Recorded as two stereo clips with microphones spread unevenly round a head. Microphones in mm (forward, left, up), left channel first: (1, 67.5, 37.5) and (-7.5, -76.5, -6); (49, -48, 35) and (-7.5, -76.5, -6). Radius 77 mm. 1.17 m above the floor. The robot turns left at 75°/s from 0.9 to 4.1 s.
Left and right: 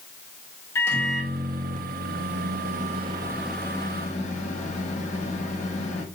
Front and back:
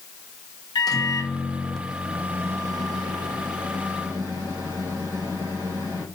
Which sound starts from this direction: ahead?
A microwave, at 0.8 s.